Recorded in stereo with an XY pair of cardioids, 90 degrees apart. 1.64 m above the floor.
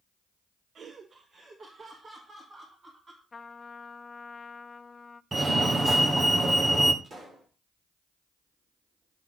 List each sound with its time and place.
0.8 s laughter: 50° right, 1.0 m; by 3.2 s 40° right, 5 m
3.3 s a trumpet: 30° left, 0.7 m
5.3 s a fire alarm: 35° right, 1.6 m
7.0 s a pop: 40° right, 6.5 m